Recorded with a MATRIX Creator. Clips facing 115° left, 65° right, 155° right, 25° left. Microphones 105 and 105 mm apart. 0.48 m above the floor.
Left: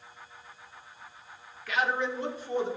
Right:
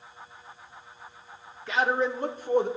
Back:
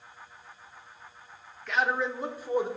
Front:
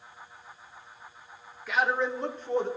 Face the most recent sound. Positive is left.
turn(degrees=-80)